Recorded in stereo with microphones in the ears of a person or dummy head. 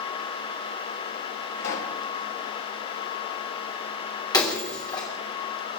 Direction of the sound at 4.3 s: 15° left (ahead or behind).